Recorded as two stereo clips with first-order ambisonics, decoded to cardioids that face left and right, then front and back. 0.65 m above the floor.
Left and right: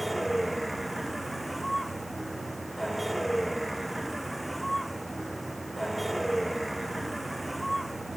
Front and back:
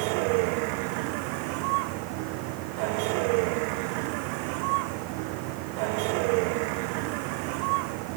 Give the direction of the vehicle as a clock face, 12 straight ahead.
6 o'clock.